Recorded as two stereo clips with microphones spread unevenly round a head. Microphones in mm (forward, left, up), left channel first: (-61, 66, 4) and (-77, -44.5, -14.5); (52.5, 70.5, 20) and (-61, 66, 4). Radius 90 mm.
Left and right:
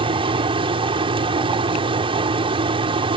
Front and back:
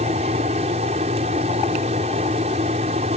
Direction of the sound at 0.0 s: 135° right.